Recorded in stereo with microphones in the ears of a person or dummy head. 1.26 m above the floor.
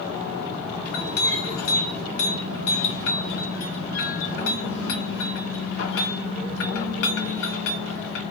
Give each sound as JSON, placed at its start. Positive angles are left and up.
{"t": 0.8, "sound": "a clink", "side_deg": 60, "distance_m": 1.1}